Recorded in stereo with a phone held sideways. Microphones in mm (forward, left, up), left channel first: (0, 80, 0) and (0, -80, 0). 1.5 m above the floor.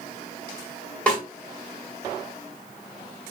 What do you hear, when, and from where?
1.1 s a snare drum: 5° left (ahead or behind), 1.9 m